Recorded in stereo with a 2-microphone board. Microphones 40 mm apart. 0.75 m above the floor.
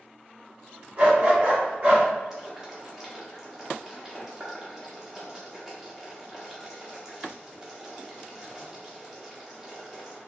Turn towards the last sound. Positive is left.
turn(degrees=-10)  # may be behind; listen again after turning